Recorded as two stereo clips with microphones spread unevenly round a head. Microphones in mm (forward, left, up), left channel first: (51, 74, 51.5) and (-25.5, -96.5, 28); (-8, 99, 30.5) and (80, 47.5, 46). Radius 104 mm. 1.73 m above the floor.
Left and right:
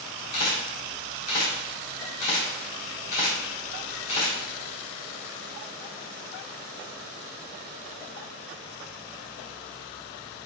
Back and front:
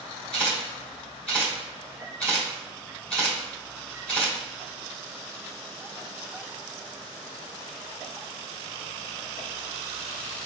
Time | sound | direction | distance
0.3 | a camera shutter | 60° left | 1.7 m